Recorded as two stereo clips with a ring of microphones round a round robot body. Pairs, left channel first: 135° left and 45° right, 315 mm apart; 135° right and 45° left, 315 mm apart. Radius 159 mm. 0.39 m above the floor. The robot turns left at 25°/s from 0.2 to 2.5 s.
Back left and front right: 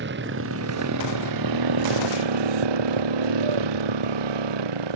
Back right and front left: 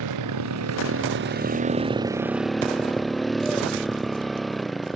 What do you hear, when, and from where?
0.0 s a motorcycle: 15° left; by 5.0 s 45° right